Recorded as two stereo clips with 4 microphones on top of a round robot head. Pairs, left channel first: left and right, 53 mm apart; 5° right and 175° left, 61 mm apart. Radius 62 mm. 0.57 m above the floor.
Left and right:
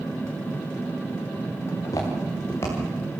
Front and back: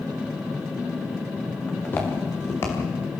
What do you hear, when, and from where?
1.7 s footsteps: 60° left, 6 m; by 2.8 s 40° left, 6 m